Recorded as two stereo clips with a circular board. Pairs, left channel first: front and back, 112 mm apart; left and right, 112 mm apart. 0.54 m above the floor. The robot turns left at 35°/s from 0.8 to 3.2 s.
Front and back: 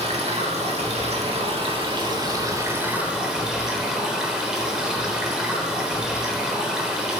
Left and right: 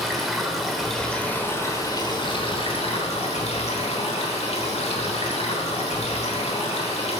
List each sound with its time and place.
0.0 s running water: straight behind, 1.1 m; by 7.2 s 95° left, 1.1 m